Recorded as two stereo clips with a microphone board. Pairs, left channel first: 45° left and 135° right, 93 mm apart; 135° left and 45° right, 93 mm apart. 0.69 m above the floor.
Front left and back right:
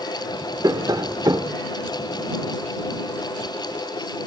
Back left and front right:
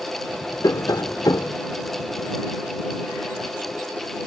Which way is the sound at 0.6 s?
Straight behind.